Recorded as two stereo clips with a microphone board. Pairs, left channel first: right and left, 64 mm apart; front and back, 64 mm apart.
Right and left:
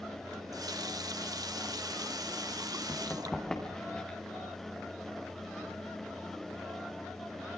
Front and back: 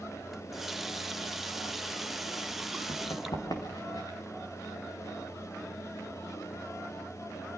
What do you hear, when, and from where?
0.3 s a running tap: 95° left, 0.9 m
2.9 s running footsteps: 5° right, 4.5 m; by 4.2 s 20° right, 6 m